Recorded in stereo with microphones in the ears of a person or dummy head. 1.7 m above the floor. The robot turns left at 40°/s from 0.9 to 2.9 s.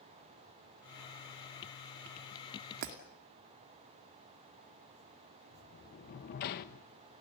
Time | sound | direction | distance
2.8 | breaking glass | 55° right (ahead or behind) | 2.5 m
5.5 | a sliding door | 50° left (ahead or behind) | 1.5 m